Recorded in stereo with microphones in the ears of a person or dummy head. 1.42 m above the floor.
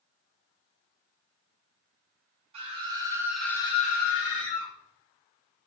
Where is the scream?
30° right (ahead or behind), 1.1 m; by 4.7 s 65° left (ahead or behind), 1.0 m.